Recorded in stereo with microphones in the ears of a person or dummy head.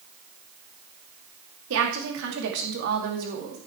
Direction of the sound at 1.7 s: 80° right.